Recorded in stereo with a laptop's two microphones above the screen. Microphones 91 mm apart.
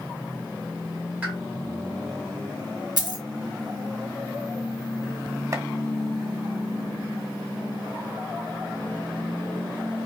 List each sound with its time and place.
1.2 s a pop: 15° right (ahead or behind), 0.9 m
3.0 s a dropped coin: 50° right (ahead or behind), 1.0 m
5.5 s chopping: 35° right (ahead or behind), 0.6 m